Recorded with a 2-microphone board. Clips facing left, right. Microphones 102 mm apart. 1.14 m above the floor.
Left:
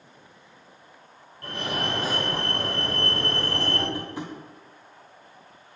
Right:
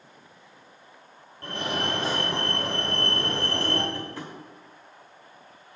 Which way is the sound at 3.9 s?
15° left (ahead or behind).